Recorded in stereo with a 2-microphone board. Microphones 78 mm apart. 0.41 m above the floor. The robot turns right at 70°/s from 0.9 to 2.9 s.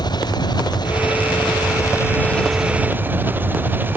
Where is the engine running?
65° left; by 4.0 s 155° right.